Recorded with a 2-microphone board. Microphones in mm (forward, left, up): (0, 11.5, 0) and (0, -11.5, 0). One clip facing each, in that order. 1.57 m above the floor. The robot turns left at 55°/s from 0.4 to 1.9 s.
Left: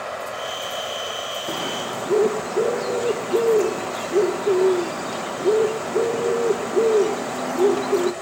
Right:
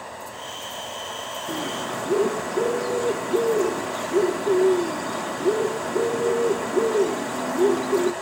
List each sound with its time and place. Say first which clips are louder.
0.0 s running water: left 7 dB; 95° left, 2.5 m; by 8.2 s 15° left, 2.5 m
1.5 s a bird: right 1 dB; 55° left (ahead or behind), 1.6 m; by 8.1 s 35° left (ahead or behind), 1.6 m